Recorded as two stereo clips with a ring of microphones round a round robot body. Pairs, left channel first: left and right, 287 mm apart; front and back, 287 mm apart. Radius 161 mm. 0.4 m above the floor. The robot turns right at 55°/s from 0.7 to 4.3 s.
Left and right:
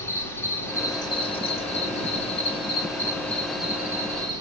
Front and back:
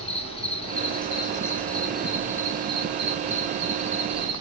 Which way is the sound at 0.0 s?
25° left.